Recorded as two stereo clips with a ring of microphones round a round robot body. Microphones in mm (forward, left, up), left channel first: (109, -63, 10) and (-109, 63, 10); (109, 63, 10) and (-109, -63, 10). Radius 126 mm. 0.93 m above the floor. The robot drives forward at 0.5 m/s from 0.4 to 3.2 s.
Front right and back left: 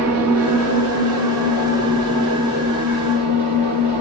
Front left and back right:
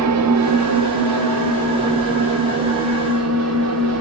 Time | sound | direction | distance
0.0 | an engine running | 175° right | 1.4 m